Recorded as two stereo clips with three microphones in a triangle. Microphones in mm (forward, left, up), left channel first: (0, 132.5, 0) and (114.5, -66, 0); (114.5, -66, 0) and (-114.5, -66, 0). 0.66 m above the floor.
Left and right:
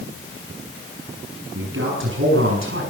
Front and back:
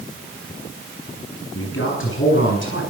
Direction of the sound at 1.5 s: 30° right.